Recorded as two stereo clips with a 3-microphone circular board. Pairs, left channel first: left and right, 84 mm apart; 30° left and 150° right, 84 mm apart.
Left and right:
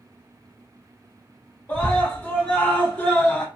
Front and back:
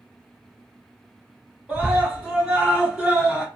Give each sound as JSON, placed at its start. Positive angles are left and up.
{"t": 1.7, "sound": "a scream", "azimuth_deg": 145, "distance_m": 1.3}